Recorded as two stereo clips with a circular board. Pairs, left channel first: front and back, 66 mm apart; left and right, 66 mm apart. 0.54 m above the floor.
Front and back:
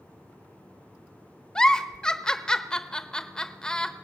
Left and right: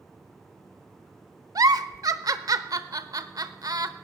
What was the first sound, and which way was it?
A giggle, 75° right.